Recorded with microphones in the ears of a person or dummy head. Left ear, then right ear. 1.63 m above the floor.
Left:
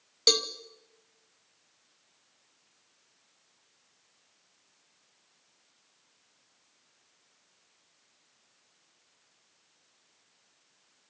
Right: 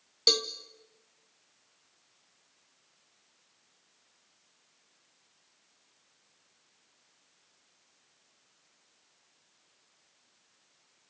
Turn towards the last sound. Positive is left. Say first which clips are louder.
# left 1 dB
turn(degrees=5)  # may be behind; listen again after turning